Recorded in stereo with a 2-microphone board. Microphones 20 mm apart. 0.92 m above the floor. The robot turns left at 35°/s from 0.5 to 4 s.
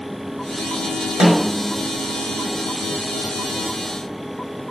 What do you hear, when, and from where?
1.2 s a snare drum: 35° right (ahead or behind), 4 m; by 1.6 s 20° right (ahead or behind), 4 m